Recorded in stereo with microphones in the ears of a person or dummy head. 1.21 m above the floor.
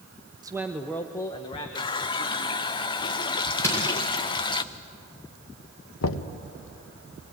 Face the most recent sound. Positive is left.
turn(degrees=85)